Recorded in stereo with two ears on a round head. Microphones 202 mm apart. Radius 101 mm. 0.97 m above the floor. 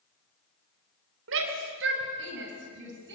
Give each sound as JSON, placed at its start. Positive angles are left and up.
{"t": 1.3, "sound": "a shout", "side_deg": -65, "distance_m": 4.0}